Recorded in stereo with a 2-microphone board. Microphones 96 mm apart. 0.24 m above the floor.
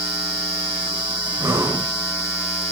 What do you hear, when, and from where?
1.4 s breathing: 30° right (ahead or behind), 3 m